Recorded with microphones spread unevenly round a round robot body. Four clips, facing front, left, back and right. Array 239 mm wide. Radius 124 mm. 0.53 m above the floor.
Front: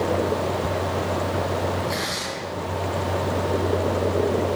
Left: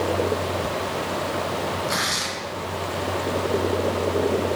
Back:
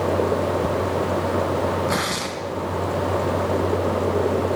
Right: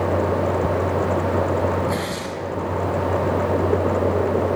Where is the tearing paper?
165° right, 4.5 m.